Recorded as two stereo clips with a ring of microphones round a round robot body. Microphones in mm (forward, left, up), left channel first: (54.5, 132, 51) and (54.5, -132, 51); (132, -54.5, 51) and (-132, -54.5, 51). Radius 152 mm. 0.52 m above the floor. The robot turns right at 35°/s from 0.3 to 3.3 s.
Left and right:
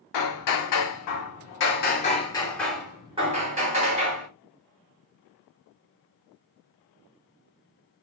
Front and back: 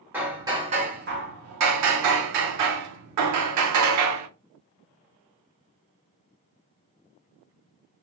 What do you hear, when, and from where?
0.1 s hammering: 95° left, 0.7 m; by 4.3 s 160° right, 0.7 m